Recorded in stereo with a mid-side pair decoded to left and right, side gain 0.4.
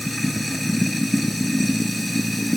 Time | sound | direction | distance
0.0 | running water | straight ahead | ?